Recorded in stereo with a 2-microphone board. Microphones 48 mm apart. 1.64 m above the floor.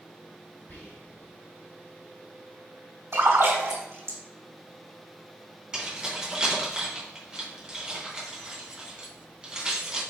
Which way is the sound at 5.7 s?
15° right (ahead or behind).